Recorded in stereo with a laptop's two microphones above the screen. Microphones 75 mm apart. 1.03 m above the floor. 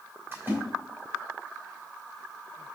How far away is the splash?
About 3.5 m.